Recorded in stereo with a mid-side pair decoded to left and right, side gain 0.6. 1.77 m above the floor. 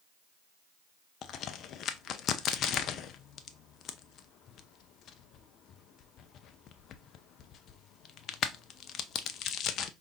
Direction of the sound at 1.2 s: 55° left.